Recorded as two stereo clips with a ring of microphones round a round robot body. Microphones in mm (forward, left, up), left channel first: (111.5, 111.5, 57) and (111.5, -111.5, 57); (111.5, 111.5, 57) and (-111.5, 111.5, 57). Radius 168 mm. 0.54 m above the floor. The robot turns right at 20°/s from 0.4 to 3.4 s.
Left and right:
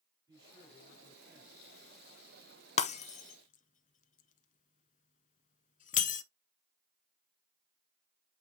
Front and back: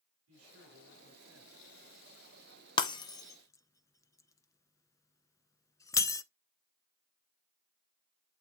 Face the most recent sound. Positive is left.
turn(degrees=65)